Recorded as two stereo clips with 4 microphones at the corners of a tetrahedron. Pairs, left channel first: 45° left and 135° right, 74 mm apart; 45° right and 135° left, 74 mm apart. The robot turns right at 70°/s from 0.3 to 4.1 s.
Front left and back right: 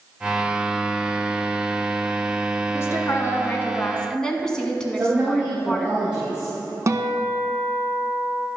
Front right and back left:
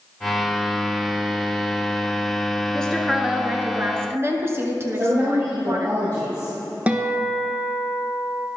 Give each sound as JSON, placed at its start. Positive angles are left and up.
{"t": 2.7, "sound": "a woman speaking", "azimuth_deg": 25, "distance_m": 1.3}
{"t": 5.0, "sound": "a woman speaking", "azimuth_deg": 155, "distance_m": 3.5}
{"t": 6.9, "sound": "a guitar", "azimuth_deg": -165, "distance_m": 1.0}